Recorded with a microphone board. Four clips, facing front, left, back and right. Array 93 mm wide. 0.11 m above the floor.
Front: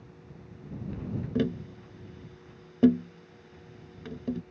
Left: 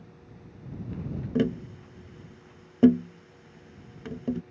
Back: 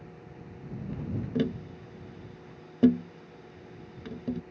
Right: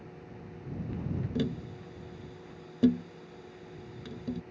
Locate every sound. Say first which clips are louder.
1.4 s tapping: left 9 dB, front 1 dB; 85° left